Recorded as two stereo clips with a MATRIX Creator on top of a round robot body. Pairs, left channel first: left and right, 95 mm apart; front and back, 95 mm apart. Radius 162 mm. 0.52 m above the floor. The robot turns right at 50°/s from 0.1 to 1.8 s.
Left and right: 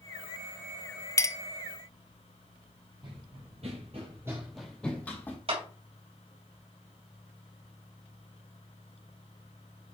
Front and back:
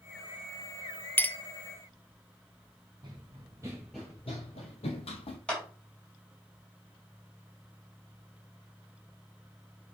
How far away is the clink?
About 0.7 m.